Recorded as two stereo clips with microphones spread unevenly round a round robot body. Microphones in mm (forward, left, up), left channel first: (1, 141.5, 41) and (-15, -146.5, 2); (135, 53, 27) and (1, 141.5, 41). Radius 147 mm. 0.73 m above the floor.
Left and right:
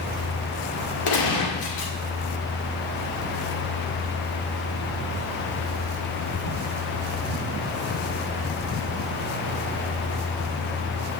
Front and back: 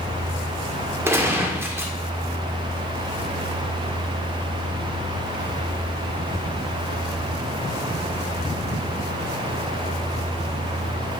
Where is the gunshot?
70° left, 1.8 m.